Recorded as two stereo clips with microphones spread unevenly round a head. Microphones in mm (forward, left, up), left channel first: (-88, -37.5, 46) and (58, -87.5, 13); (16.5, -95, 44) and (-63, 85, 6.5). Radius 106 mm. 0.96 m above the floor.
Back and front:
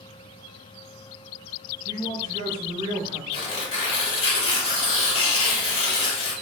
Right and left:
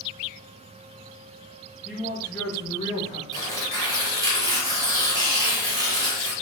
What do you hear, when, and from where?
1.9 s a man speaking: 35° left, 0.9 m; by 3.2 s 30° right, 0.5 m
3.3 s tearing paper: 165° right, 1.1 m